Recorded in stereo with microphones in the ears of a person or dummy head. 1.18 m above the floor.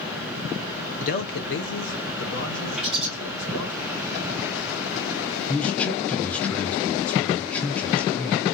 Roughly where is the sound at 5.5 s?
Centre.